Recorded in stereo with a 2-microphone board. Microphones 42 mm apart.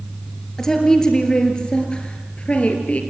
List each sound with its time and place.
0.6 s a woman speaking: 15° left (ahead or behind), 4.5 m; by 3.0 s 35° left (ahead or behind), 4.5 m